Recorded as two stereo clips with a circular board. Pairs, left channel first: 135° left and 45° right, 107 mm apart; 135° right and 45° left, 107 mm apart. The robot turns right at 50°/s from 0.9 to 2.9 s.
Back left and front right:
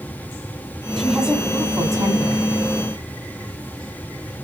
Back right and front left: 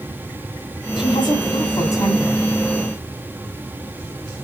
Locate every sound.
1.0 s a woman speaking: 140° right, 2 m; by 2.4 s 65° right, 2 m